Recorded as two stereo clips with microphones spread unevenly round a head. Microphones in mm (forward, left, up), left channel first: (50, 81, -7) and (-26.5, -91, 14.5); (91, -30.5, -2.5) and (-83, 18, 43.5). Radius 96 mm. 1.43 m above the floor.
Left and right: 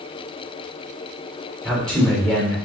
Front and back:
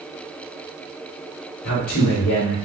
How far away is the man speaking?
About 4 m.